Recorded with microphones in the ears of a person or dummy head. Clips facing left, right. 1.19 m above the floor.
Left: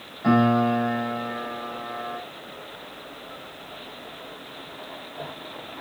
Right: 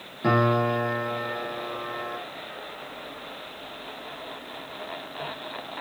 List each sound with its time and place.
0.2 s a piano: 40° right (ahead or behind), 4.5 m